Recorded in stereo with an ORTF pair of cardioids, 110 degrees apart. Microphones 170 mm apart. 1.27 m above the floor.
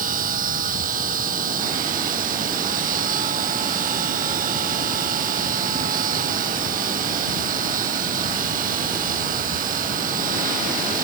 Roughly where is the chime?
No chime in this recording.